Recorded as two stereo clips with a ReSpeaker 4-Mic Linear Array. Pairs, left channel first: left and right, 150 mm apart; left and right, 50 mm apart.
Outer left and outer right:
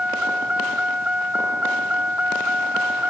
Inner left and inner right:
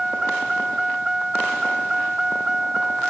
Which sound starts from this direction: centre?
A vehicle, at 0.0 s.